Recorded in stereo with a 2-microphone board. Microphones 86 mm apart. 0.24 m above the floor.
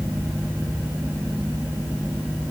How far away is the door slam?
I don't hear a door slam.